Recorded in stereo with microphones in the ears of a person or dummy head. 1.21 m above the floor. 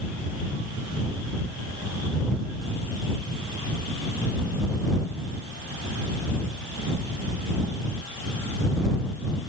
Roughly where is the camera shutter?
I don't hear a camera shutter.